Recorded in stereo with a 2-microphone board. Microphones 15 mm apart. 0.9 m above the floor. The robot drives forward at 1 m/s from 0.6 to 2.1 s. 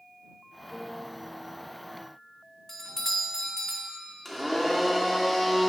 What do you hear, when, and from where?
0.7 s a piano: 30° left (ahead or behind), 1.1 m; by 1.1 s 40° left (ahead or behind), 0.9 m
2.7 s a doorbell: 35° left (ahead or behind), 1.1 m
4.2 s a blender: 10° left (ahead or behind), 2.5 m